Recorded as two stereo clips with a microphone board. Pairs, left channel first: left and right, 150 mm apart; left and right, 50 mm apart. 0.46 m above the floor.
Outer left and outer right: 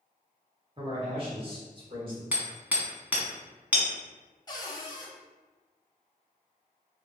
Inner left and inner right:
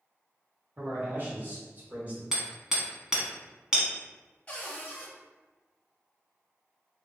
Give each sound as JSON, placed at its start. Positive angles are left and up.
{"t": 0.8, "sound": "a man speaking", "side_deg": -35, "distance_m": 1.2}
{"t": 2.3, "sound": "hammering", "side_deg": -10, "distance_m": 1.0}
{"t": 4.5, "sound": "a cupboard door", "side_deg": 25, "distance_m": 0.7}